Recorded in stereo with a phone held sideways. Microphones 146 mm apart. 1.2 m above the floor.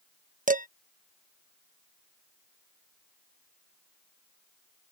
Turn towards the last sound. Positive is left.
turn(degrees=-75)  # may be behind; listen again after turning